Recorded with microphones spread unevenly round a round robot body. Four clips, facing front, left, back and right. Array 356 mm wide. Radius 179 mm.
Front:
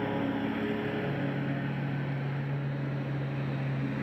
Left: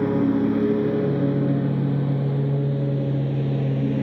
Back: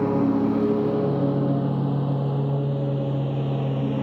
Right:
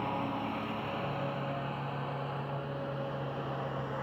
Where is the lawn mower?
130° left; by 4.0 s 115° left.